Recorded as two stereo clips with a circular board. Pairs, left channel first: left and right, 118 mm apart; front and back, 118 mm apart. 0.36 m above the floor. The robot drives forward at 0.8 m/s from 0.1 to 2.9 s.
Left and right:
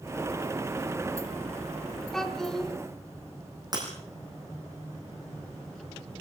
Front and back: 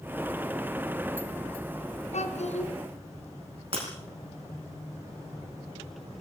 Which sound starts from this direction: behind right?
Breaking glass, at 3.7 s.